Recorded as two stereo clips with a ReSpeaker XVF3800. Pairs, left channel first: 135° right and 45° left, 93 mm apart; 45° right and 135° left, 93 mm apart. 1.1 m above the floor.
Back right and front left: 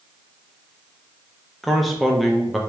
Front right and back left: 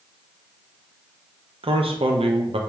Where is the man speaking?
135° left, 0.5 m.